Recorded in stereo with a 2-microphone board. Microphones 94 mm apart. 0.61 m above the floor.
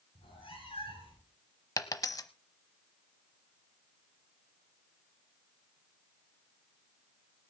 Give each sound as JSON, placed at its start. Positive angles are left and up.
{"t": 0.1, "sound": "a cat meowing", "side_deg": 75, "distance_m": 9.5}
{"t": 1.8, "sound": "a dropped coin", "side_deg": 40, "distance_m": 1.0}